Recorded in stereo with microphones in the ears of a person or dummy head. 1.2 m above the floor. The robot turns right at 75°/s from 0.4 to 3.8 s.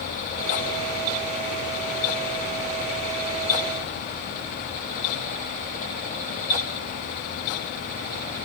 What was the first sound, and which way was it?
Only background noise.